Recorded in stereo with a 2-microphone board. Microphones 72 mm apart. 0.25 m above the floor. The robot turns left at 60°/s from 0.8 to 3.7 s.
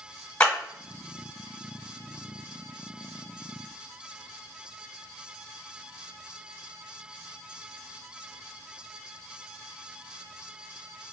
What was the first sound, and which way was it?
A clap, 20° left (ahead or behind).